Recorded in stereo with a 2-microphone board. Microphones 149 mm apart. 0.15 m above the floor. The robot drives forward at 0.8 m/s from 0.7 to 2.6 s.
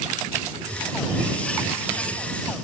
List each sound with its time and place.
0.4 s writing: 25° right (ahead or behind), 3 m; by 2.5 s 45° right (ahead or behind), 1.9 m